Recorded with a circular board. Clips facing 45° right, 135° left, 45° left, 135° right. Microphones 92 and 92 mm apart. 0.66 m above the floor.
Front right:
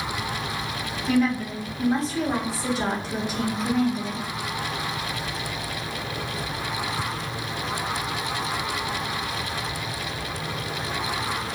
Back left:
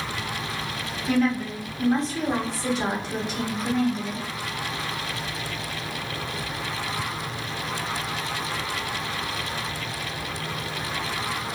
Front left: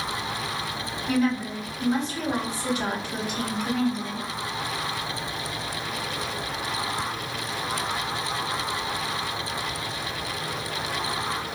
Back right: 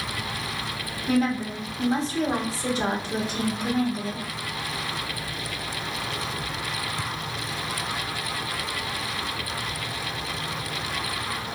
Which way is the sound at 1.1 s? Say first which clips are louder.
Even, back right 1 dB; 130° right.